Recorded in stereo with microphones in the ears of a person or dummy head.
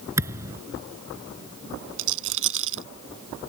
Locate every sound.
0.2 s a thud: 15° right (ahead or behind)
2.0 s a rattle: 70° right (ahead or behind)